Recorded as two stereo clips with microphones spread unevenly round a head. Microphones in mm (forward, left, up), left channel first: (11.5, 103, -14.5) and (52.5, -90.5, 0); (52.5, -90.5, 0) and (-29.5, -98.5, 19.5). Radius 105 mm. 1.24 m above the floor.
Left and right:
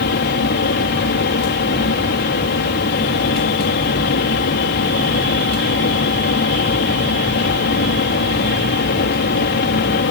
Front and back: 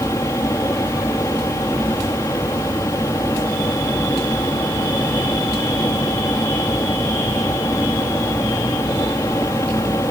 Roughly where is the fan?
Left.